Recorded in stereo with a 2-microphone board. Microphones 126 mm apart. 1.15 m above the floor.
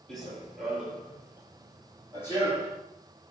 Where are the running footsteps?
5° left (ahead or behind), 1.2 m; by 2.8 s 35° right (ahead or behind), 1.8 m.